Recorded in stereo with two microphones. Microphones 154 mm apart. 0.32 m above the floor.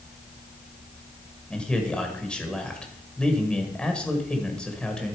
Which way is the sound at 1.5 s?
5° left (ahead or behind).